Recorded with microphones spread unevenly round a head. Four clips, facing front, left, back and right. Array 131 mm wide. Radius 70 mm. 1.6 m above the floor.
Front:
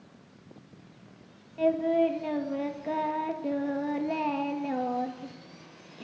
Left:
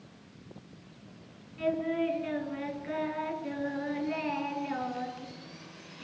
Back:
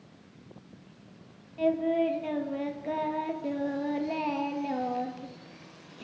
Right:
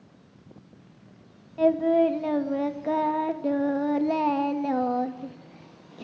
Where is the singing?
85° right, 1.8 m.